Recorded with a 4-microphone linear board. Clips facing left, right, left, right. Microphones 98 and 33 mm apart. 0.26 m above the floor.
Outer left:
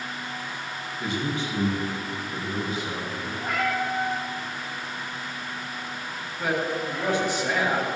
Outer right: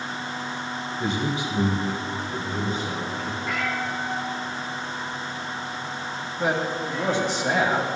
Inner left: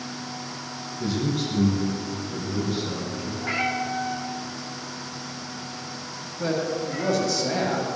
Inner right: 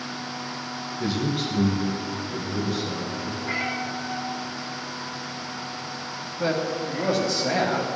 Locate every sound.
1.0 s a man speaking: 25° right (ahead or behind), 1.4 m; by 3.3 s 15° left (ahead or behind), 3 m
3.4 s a cat meowing: 45° left (ahead or behind), 3.5 m
6.4 s a man speaking: 25° right (ahead or behind), 1.5 m